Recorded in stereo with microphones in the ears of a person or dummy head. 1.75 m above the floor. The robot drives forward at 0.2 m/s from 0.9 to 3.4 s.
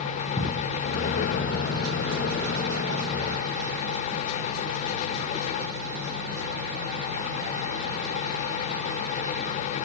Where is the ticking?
20° left (ahead or behind), 1.1 m.